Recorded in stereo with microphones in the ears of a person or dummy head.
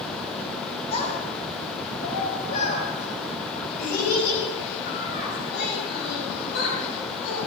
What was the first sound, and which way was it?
A child speaking, 40° left (ahead or behind).